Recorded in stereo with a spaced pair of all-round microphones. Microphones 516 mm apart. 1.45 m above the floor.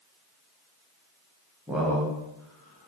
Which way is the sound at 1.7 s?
5° right (ahead or behind).